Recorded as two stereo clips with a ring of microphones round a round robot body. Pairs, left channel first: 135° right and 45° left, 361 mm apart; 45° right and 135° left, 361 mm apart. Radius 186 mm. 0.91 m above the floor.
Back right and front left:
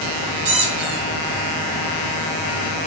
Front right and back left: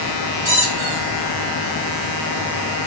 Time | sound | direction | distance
0.5 | a squeak | 65° left | 1.7 m